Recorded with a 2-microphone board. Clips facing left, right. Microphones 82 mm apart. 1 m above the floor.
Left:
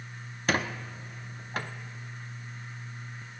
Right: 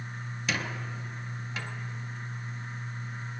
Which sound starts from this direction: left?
A squeak, at 0.5 s.